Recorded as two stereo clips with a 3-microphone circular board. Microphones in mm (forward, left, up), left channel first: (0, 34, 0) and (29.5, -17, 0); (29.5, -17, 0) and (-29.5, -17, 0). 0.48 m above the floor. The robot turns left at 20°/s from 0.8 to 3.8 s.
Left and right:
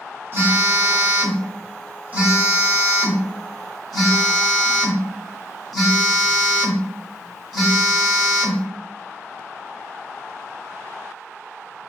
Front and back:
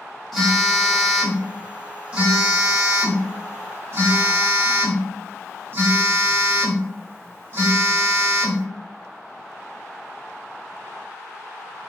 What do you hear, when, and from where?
0.3 s a phone buzzing: 85° right, 1.1 m; by 8.7 s 145° right, 1.1 m